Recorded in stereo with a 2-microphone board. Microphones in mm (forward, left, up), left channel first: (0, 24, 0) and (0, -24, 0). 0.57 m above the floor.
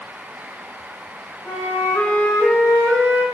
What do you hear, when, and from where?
1.4 s a flute: 65° left (ahead or behind), 1.8 m